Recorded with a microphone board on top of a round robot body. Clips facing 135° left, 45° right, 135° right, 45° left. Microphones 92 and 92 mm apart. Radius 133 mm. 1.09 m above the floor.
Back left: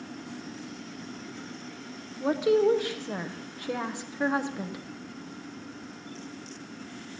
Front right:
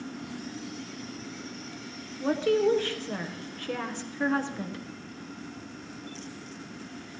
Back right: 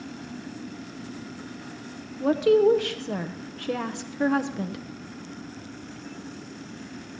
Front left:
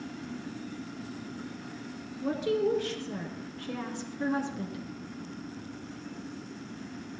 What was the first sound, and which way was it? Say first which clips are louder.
A woman speaking: back left 1 dB, back right 9 dB; 150° right.